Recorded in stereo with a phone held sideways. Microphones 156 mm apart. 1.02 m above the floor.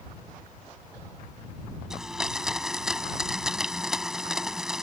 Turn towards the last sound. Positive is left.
turn(degrees=-5)  # may be behind; listen again after turning